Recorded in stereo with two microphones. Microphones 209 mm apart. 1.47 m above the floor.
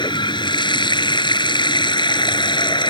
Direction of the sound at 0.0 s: 20° left (ahead or behind).